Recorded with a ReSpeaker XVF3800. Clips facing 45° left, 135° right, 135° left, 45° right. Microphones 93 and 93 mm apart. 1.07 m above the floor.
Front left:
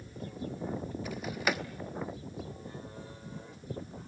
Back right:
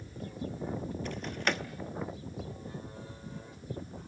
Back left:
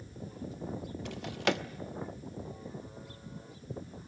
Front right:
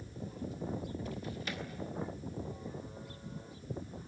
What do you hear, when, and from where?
1.1 s a drawer: 130° left, 1.0 m